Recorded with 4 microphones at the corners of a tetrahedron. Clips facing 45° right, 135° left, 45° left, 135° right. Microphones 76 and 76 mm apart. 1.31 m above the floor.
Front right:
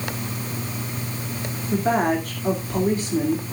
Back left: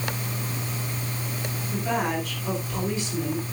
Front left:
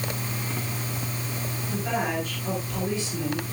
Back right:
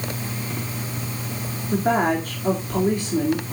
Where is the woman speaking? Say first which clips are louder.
Front right 6 dB, back right 8 dB; 95° right, 2.5 m.